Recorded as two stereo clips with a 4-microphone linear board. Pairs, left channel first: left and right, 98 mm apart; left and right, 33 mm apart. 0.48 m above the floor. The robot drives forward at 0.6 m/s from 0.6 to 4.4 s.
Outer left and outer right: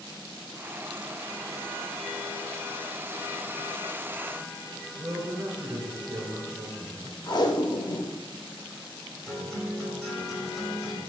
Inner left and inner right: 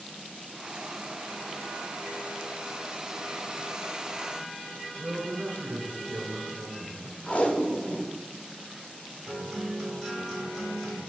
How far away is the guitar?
About 1.5 m.